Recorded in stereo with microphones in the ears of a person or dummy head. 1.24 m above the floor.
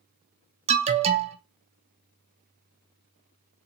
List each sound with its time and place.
0.7 s an alarm: 30° right (ahead or behind), 0.5 m